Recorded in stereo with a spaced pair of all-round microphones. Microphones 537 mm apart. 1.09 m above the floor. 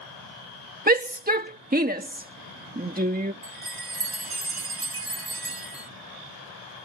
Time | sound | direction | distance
0.9 | a shout | 15° right (ahead or behind) | ?
3.4 | a chime | 65° right (ahead or behind) | ?